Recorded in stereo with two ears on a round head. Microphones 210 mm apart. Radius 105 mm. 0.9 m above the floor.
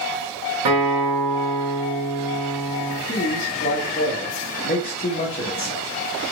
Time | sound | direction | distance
0.7 | a guitar | 65° right (ahead or behind) | 2.5 m
3.1 | a man speaking | 30° left (ahead or behind) | 1.2 m